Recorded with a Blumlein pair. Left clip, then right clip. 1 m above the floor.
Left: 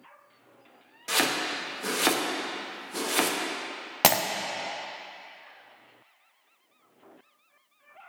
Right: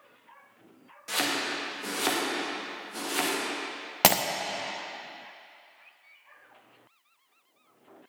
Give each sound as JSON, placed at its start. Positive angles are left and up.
{"t": 1.1, "sound": "chopping", "azimuth_deg": 15, "distance_m": 1.2}
{"t": 4.0, "sound": "breaking glass", "azimuth_deg": 0, "distance_m": 0.6}